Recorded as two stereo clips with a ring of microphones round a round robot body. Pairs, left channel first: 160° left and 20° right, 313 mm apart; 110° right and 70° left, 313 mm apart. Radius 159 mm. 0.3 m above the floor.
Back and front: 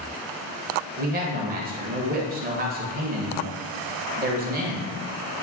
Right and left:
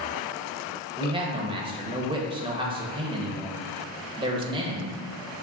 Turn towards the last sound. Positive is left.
turn(degrees=10)